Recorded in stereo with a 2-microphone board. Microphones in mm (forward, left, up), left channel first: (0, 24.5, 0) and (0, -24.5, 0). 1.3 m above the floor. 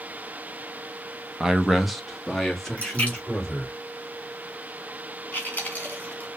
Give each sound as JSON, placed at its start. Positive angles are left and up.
{"t": 1.4, "sound": "a man speaking", "side_deg": -10, "distance_m": 0.6}
{"t": 2.8, "sound": "a splash", "side_deg": 25, "distance_m": 3.0}
{"t": 5.3, "sound": "chewing", "side_deg": 30, "distance_m": 2.0}